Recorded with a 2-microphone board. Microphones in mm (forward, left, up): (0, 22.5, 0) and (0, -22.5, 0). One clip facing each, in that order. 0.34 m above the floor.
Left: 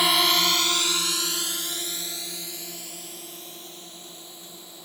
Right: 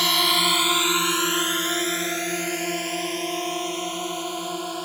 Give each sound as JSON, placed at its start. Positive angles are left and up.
{"t": 0.0, "sound": "a drone", "side_deg": 10}